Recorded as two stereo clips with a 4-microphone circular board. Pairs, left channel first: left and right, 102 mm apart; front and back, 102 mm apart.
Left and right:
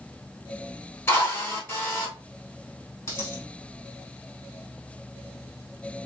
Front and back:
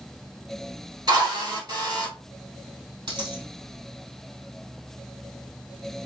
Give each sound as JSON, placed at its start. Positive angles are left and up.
{"t": 1.1, "sound": "a drill", "azimuth_deg": 150, "distance_m": 1.7}
{"t": 3.1, "sound": "a dropped coin", "azimuth_deg": 150, "distance_m": 1.7}